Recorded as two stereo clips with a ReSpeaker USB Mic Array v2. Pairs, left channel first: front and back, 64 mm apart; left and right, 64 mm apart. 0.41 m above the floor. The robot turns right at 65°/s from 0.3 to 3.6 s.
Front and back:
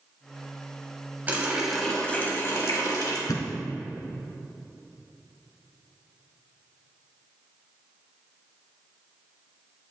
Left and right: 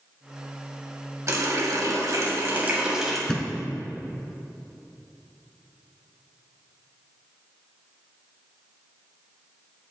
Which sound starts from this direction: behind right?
A running tap, at 1.3 s.